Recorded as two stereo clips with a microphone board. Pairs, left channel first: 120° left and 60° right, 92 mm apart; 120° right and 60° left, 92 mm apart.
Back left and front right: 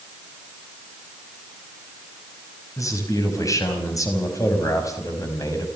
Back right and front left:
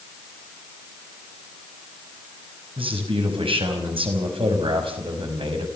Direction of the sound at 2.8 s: 70° left.